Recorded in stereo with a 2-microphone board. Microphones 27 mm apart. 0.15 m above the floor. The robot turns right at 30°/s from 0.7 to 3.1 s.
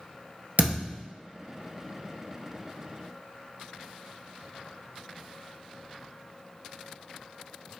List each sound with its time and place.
0.6 s a thud: 65° right (ahead or behind), 1.5 m; by 1.0 s 60° right (ahead or behind), 1.5 m